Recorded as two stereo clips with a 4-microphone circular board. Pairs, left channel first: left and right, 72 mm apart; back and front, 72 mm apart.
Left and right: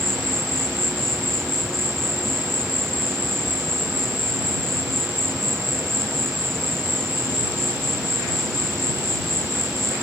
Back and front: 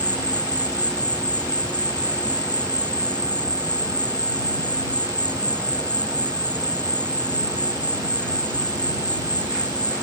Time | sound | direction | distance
0.0 | an insect | 175° left | ?